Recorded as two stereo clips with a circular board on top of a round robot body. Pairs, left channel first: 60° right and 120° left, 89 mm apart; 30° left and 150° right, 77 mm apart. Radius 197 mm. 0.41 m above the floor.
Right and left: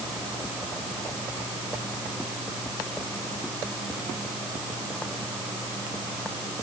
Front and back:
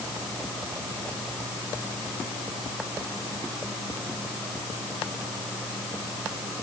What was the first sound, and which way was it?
Only background noise.